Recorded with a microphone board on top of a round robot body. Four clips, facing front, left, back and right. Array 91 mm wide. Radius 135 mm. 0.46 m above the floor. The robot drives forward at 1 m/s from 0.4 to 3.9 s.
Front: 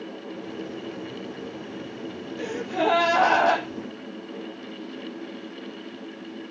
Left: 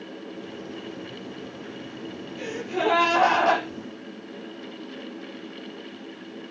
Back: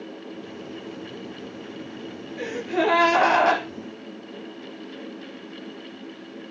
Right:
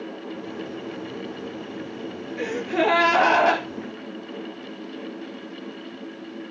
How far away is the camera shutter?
I don't hear a camera shutter.